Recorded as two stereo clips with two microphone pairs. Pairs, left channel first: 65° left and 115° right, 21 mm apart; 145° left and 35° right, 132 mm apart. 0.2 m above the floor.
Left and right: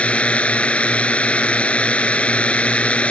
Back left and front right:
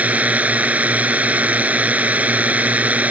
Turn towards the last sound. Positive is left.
turn(degrees=45)